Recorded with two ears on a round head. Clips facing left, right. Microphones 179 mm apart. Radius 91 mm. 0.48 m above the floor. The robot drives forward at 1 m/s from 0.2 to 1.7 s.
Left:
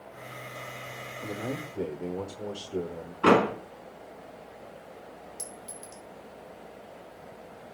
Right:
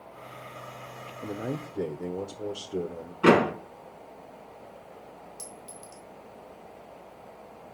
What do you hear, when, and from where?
1.2 s a man speaking: 20° right (ahead or behind), 0.8 m; by 3.1 s 15° right (ahead or behind), 1.1 m
3.2 s a door slam: 20° right (ahead or behind), 4.5 m
5.4 s a clink: 5° left (ahead or behind), 3.5 m